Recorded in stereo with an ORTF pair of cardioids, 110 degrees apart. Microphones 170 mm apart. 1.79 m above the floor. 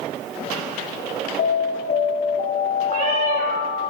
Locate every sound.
1.4 s an alarm: 60° left, 5.5 m
2.9 s a cat meowing: 55° right, 5.5 m